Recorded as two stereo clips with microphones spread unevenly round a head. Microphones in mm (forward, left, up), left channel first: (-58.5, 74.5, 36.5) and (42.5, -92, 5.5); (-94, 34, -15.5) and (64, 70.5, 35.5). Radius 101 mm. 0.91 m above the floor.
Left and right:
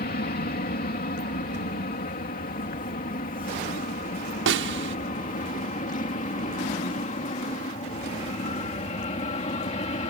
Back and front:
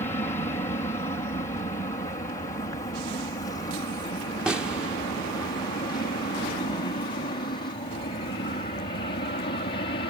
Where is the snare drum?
75° right.